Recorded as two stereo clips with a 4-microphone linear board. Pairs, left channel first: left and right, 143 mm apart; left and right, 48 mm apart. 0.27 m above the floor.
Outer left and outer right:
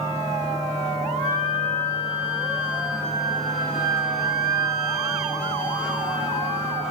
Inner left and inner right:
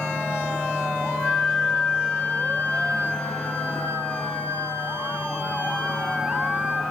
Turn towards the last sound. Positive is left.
turn(degrees=30)  # may be behind; listen again after turning